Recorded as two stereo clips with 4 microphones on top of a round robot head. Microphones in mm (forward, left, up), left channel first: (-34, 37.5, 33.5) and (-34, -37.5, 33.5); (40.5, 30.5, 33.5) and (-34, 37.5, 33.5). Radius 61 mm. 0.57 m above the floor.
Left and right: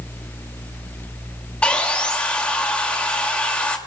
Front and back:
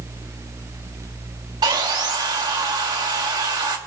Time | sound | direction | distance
1.6 | sawing | 160° left | 2 m